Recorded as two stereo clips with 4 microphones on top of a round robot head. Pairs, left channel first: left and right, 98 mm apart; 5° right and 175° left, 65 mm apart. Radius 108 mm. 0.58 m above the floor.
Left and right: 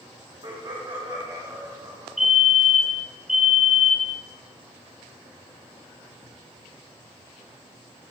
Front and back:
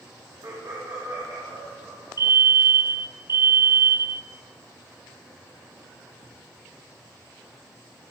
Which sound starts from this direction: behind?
A fire alarm, at 2.2 s.